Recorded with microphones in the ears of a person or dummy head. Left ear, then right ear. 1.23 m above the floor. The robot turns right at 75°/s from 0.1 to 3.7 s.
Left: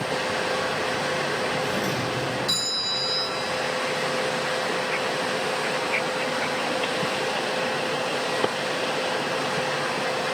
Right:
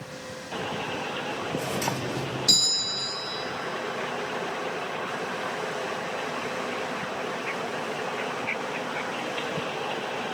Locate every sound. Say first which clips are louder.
1.6 s a doorbell: left 4 dB; 105° right, 1.8 m; by 3.4 s 30° left, 1.8 m